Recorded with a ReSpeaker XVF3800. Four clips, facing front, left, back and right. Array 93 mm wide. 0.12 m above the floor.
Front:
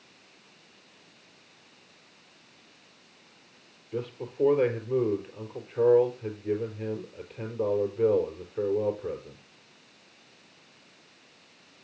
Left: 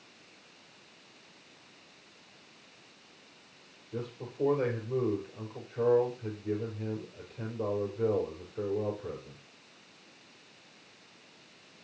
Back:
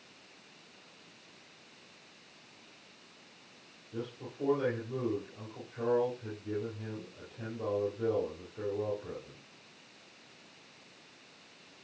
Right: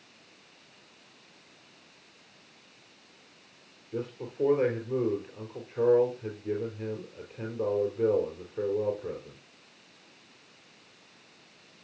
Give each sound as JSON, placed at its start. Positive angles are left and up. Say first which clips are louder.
{"t": 3.9, "sound": "a man speaking", "louder": "right 3 dB, front 8 dB", "azimuth_deg": -30, "distance_m": 3.5}